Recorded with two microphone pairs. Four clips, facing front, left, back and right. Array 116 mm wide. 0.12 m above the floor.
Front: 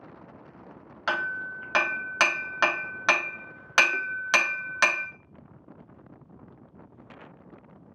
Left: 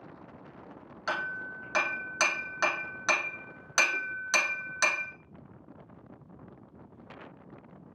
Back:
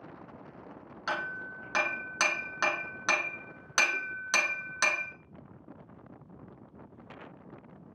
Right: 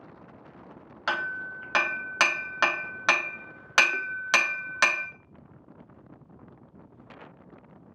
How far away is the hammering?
About 0.8 m.